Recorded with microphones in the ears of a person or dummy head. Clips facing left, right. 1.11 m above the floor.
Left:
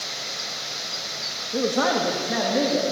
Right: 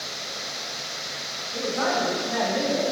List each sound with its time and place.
1.5 s a man speaking: 60° left (ahead or behind), 1.6 m; by 2.9 s 45° left (ahead or behind), 2.5 m